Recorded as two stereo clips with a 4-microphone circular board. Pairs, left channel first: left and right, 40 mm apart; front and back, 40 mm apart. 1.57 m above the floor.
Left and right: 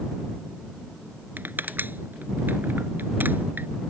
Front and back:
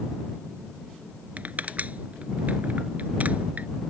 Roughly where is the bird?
No bird in this recording.